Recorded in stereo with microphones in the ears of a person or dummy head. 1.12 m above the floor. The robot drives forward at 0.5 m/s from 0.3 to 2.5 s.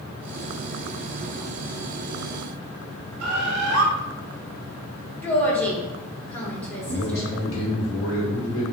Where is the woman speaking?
10° left (ahead or behind), 0.8 m.